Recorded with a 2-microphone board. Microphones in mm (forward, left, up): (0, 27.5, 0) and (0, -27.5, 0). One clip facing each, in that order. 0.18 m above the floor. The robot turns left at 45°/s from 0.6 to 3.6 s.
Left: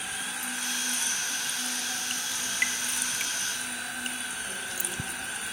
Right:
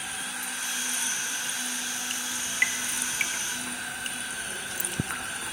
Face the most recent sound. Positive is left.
turn(degrees=-60)  # may be behind; listen again after turning